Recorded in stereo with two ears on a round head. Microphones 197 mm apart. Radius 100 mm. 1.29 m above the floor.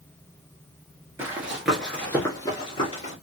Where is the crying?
No crying in this recording.